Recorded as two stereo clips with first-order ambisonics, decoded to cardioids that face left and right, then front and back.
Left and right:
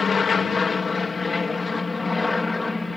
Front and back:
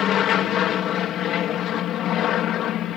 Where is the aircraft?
25° left; by 3.0 s 10° left.